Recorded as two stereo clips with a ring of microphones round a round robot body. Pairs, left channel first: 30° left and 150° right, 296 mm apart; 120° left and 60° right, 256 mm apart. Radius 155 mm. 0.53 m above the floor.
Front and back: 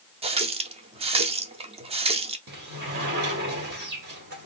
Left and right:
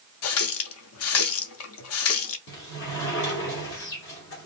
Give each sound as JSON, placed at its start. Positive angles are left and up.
{"t": 0.2, "sound": "a running tap", "azimuth_deg": 140, "distance_m": 0.6}
{"t": 2.5, "sound": "a sliding door", "azimuth_deg": 160, "distance_m": 1.9}